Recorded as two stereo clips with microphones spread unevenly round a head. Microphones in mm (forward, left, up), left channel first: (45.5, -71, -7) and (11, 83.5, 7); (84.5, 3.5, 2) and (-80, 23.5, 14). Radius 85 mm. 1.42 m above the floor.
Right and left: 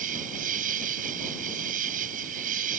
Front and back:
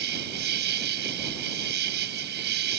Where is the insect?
150° left.